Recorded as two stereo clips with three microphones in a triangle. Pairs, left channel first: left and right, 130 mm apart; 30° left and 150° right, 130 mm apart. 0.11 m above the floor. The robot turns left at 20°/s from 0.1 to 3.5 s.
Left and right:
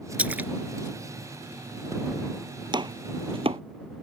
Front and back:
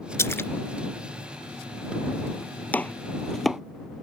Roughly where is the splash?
Ahead.